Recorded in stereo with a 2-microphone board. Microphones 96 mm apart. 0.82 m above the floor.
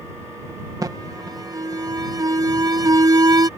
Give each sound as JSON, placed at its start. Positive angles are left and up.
{"t": 0.8, "sound": "an alarm", "side_deg": -40}